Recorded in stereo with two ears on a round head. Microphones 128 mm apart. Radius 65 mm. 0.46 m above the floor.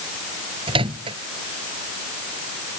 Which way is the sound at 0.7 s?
40° right (ahead or behind).